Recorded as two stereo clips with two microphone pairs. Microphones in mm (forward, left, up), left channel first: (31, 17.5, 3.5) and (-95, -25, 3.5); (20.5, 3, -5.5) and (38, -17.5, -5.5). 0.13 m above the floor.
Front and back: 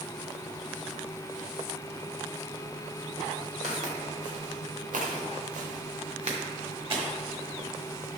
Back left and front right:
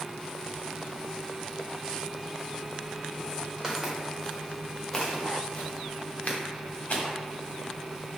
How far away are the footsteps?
About 1.5 m.